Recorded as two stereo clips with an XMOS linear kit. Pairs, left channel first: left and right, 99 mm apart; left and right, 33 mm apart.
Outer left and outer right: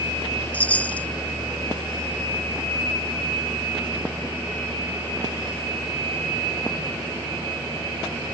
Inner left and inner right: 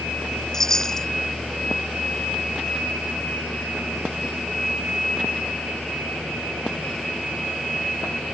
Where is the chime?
15° left (ahead or behind).